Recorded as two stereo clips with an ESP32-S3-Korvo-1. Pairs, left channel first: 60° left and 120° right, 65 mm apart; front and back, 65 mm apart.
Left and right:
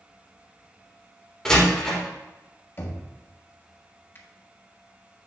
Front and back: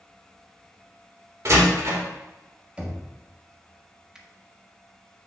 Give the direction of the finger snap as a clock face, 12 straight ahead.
9 o'clock.